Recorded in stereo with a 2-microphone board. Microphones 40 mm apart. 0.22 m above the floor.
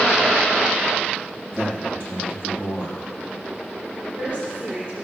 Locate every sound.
1.5 s a man speaking: 65° right (ahead or behind), 4 m
4.0 s a woman speaking: 35° right (ahead or behind), 3 m